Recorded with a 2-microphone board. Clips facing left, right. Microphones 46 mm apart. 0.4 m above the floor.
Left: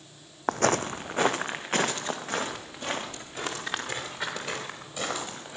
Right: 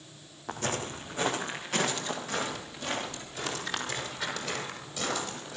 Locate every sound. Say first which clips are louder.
0.5 s footsteps: left 8 dB; 65° left (ahead or behind), 0.8 m; by 5.6 s 25° left (ahead or behind), 7.5 m